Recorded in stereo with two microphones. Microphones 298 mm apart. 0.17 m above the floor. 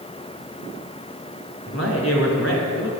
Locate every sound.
1.7 s a man speaking: 50° left (ahead or behind), 2.5 m